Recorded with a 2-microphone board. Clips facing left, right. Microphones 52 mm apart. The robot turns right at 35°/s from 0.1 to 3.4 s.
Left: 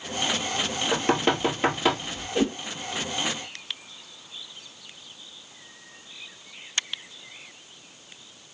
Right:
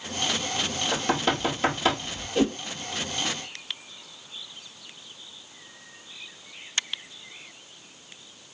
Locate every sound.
0.9 s knocking: 45° left (ahead or behind), 1.6 m; by 2.2 s 5° left (ahead or behind), 1.6 m
2.4 s a whoosh: 15° left (ahead or behind), 1.9 m; by 2.6 s 10° left (ahead or behind), 1.9 m